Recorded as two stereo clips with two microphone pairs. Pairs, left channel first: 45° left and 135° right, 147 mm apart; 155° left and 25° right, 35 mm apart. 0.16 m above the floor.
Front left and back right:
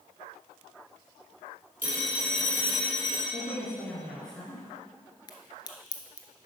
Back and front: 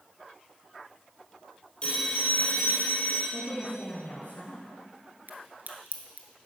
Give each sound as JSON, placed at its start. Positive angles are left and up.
{"t": 1.8, "sound": "a phone ringing", "azimuth_deg": -150, "distance_m": 3.0}
{"t": 3.3, "sound": "a woman speaking", "azimuth_deg": 130, "distance_m": 2.5}
{"t": 5.3, "sound": "a crack", "azimuth_deg": -10, "distance_m": 1.1}